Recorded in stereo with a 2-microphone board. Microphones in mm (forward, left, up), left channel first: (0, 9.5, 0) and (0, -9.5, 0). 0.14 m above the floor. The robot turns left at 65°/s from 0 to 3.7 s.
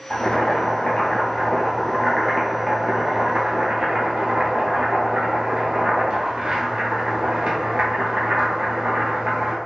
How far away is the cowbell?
No cowbell in this recording.